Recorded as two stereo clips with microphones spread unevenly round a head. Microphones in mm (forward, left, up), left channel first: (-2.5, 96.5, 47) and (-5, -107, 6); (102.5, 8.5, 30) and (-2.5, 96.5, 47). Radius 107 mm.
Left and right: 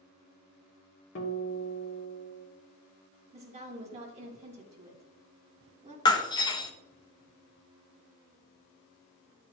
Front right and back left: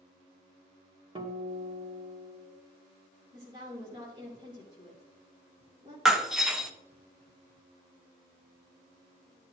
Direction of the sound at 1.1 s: 100° left.